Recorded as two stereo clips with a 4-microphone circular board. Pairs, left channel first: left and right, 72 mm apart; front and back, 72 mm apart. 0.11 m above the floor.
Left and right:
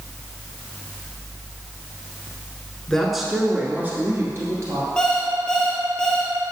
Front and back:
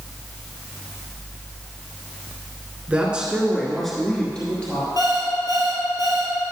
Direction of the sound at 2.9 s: 155° left.